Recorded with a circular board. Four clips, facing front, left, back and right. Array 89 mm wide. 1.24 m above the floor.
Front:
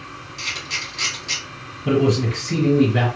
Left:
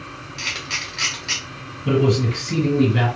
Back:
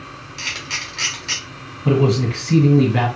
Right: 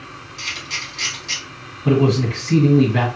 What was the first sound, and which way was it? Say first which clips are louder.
A camera shutter: left 1 dB, back 1 dB; 140° left.